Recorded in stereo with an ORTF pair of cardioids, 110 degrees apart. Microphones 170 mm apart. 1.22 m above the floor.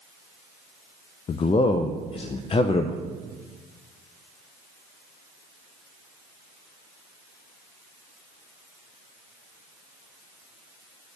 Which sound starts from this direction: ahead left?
A man speaking, at 1.3 s.